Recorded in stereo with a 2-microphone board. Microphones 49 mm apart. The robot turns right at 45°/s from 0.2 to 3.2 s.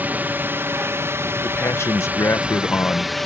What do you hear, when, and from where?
0.0 s a drone: 130° right; by 3.3 s 5° left
1.4 s a man speaking: 60° left; by 3.1 s 140° left